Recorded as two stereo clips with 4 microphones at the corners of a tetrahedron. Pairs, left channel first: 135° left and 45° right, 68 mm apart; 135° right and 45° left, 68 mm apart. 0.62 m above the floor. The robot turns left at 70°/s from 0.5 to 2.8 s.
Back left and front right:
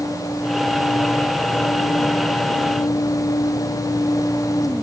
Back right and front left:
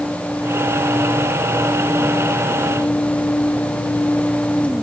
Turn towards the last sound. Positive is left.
No sound to turn to.